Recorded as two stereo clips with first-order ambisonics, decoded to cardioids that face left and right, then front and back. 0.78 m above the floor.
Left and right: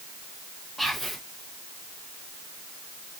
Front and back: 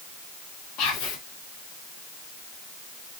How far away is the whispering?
About 0.9 m.